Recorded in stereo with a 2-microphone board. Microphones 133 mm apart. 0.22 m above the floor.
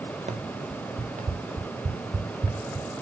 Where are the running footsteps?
65° right (ahead or behind), 1.5 m; by 2.9 s 85° right, 4 m.